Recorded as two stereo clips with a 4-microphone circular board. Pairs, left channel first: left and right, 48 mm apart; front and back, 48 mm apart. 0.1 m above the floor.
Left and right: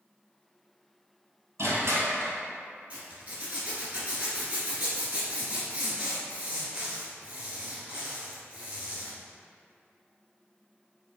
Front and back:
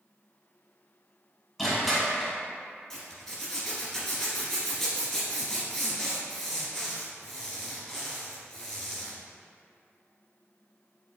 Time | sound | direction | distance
1.6 | crushing | 90° right | 1.3 m
2.9 | a zipper | 70° right | 1.7 m